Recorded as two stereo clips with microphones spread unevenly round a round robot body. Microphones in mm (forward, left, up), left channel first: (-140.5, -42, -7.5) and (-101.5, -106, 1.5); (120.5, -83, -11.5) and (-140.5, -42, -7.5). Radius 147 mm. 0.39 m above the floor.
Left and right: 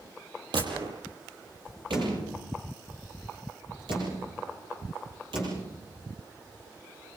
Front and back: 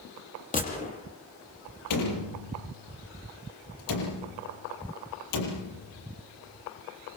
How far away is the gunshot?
About 6.5 m.